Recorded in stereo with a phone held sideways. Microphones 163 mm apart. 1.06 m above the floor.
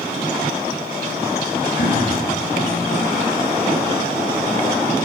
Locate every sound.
1.8 s throat clearing: 75° left (ahead or behind), 3.5 m